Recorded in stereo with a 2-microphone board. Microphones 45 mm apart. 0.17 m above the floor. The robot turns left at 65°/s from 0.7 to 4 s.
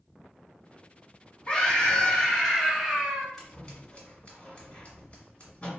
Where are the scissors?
5° left (ahead or behind), 1.5 m; by 5.7 s 30° left (ahead or behind), 1.5 m.